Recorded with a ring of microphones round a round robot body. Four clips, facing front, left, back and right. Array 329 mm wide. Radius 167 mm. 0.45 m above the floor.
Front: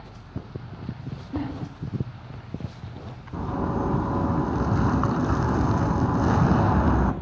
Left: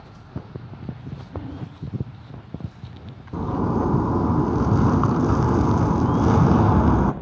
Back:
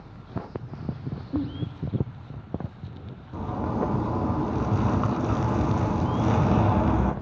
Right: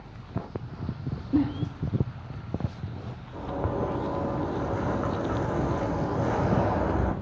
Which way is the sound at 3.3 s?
80° left.